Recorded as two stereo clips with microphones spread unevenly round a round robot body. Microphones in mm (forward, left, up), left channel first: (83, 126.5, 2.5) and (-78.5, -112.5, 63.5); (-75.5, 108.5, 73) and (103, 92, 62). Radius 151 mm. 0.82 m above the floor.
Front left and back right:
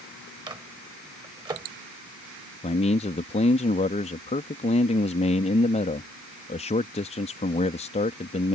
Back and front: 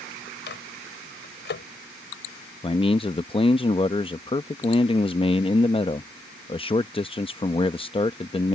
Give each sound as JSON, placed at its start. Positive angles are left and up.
{"t": 0.5, "sound": "a microwave", "azimuth_deg": 160}
{"t": 2.6, "sound": "a man speaking", "azimuth_deg": 115}